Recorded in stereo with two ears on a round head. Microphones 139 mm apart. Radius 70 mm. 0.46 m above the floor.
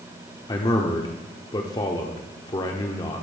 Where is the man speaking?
25° left (ahead or behind), 0.9 m.